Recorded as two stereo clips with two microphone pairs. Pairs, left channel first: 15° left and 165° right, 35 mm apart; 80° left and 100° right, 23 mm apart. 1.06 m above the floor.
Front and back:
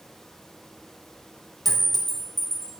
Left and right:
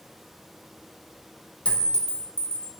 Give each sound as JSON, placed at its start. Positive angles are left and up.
{"t": 1.6, "sound": "a clink", "azimuth_deg": 105, "distance_m": 2.5}